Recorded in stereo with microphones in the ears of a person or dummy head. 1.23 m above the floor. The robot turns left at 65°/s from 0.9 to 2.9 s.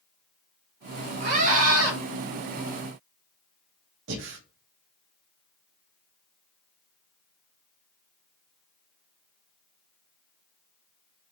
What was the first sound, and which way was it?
A scream, 55° right.